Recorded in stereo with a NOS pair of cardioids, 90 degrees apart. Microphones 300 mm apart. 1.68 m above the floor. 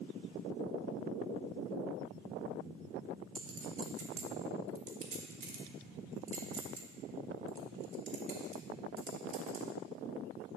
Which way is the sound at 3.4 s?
45° right.